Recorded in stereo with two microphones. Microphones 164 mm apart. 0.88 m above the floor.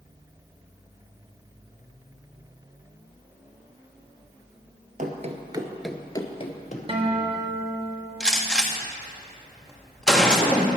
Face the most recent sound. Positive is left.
turn(degrees=5)  # may be behind; listen again after turning